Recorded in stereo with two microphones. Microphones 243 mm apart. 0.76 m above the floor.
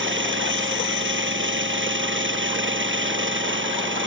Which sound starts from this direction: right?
An engine running, at 0.0 s.